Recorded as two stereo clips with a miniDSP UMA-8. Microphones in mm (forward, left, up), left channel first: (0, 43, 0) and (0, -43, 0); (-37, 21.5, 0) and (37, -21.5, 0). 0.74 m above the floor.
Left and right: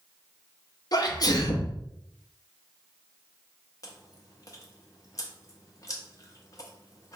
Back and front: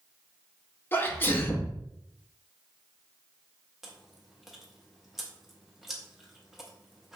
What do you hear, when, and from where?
0.9 s a sneeze: 90° left, 0.7 m
3.8 s chewing: 55° left, 0.8 m